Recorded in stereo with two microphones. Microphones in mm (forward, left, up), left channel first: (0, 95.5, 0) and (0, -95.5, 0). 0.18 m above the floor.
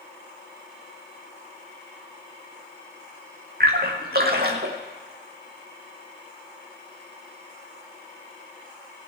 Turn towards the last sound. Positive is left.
turn(degrees=-55)  # may be behind; listen again after turning